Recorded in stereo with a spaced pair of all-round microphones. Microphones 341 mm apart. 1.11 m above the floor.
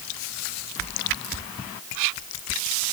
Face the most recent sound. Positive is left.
No sound to turn to.